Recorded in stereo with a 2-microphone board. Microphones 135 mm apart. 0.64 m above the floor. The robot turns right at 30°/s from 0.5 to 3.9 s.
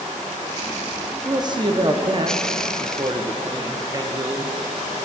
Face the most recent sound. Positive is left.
turn(degrees=-50)